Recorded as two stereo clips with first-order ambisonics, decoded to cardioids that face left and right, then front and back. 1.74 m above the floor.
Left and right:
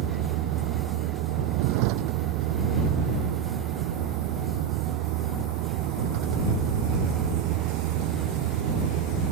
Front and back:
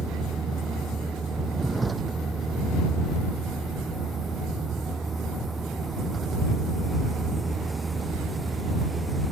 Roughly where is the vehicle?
Right.